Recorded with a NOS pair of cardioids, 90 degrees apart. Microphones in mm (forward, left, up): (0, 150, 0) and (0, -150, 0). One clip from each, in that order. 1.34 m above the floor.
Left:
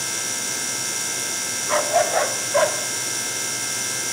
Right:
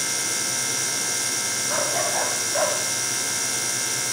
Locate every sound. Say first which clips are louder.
1.7 s a dog barking: left 7 dB; 60° left, 2.5 m; by 2.8 s 80° left, 3 m